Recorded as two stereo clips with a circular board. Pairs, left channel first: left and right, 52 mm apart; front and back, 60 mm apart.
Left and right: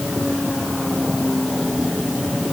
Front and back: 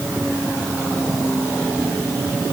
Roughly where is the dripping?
I don't hear dripping.